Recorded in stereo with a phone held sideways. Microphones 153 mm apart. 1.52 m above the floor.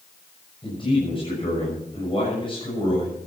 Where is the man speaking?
35° left (ahead or behind), 7 m.